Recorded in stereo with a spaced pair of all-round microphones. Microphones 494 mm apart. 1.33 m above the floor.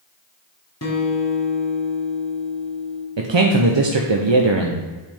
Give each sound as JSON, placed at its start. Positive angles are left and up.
{"t": 0.8, "sound": "a guitar", "side_deg": 30, "distance_m": 1.7}
{"t": 3.2, "sound": "a man speaking", "side_deg": -60, "distance_m": 0.7}